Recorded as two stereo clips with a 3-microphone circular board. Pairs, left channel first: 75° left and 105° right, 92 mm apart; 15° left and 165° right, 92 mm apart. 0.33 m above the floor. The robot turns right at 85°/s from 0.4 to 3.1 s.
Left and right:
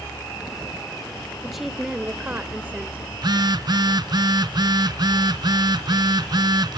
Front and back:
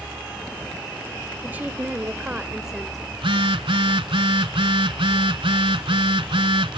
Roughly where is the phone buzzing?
Behind right.